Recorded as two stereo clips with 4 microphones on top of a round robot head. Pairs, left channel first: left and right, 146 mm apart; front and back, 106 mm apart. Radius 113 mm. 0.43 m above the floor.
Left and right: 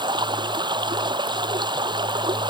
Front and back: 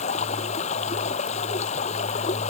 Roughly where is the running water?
Ahead right.